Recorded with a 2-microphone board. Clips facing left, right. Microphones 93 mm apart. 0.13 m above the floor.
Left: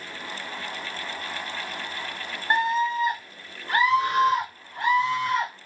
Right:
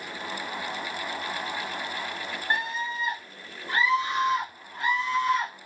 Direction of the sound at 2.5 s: 30° left (ahead or behind).